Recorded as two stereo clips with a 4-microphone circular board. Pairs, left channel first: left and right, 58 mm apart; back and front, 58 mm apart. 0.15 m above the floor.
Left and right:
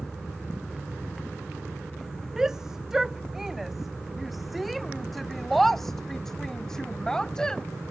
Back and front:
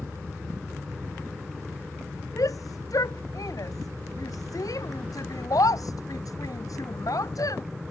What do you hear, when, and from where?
2.4 s a shout: 170° right; by 7.6 s 165° left